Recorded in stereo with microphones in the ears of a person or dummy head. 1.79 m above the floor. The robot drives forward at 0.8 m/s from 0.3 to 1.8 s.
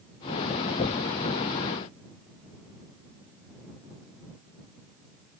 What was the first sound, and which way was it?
Only background noise.